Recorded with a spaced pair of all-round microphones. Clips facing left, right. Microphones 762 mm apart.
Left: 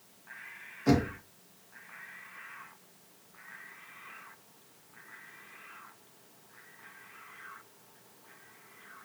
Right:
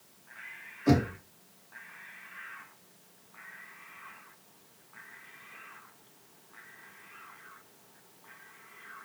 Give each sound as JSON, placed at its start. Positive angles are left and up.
{"t": 0.9, "sound": "knocking", "side_deg": 30, "distance_m": 0.7}